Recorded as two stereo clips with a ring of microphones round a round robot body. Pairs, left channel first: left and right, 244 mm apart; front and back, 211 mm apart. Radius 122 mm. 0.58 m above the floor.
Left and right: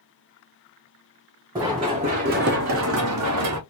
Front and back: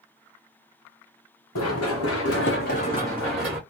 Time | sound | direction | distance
1.6 | running footsteps | 15° right | 2 m